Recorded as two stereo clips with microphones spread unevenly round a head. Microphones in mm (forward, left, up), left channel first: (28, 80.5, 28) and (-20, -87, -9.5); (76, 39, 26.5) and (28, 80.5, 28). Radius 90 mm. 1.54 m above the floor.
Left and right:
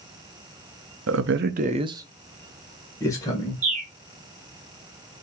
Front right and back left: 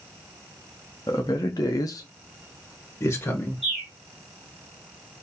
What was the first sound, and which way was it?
A man speaking, 100° right.